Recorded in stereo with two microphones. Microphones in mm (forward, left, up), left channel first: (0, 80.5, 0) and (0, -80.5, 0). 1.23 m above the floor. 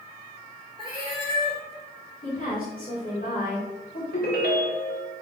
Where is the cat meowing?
30° right (ahead or behind), 1.9 m.